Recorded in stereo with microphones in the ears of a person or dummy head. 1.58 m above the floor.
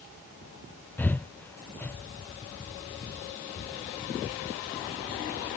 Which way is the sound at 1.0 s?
10° left (ahead or behind).